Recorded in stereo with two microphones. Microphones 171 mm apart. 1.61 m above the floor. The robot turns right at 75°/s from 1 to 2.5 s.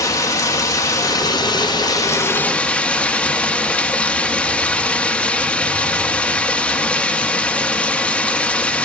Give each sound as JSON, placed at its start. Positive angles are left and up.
{"t": 0.0, "sound": "running water", "side_deg": 20, "distance_m": 1.0}